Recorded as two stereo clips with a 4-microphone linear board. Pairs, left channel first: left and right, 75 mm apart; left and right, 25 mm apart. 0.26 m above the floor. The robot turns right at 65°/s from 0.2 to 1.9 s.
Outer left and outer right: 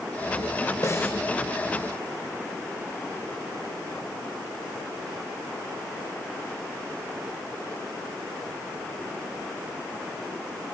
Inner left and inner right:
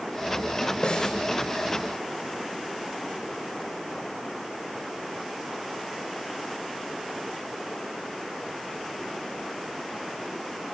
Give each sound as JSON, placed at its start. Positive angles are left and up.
{"t": 0.8, "sound": "a snare drum", "side_deg": 45, "distance_m": 3.5}